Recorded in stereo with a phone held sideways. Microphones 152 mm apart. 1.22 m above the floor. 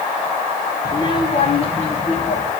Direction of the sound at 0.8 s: 30° left (ahead or behind).